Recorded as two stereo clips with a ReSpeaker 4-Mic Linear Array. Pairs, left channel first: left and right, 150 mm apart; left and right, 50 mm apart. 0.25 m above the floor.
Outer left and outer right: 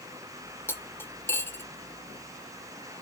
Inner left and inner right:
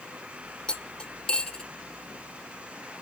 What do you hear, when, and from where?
0.7 s cutlery clinking: 15° left (ahead or behind), 0.6 m